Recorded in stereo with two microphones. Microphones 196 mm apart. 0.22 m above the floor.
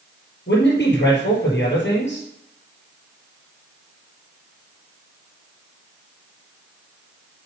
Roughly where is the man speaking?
Left.